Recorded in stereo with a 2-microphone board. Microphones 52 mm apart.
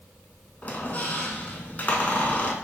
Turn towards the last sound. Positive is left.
turn(degrees=30)  # may be behind; listen again after turning